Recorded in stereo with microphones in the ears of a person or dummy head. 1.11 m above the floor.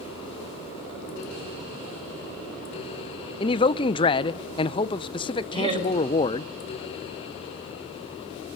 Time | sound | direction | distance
3.4 | a man speaking | 25° left (ahead or behind) | 0.7 m
5.5 | laughter | 35° right (ahead or behind) | 5.5 m